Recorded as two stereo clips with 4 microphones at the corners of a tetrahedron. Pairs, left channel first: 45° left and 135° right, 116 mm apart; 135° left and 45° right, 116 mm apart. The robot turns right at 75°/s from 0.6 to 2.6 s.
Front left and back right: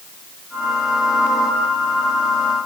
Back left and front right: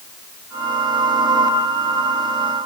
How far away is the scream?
No scream in this recording.